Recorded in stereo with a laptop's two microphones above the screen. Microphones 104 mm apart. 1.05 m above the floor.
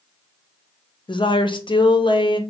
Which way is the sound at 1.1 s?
50° left (ahead or behind).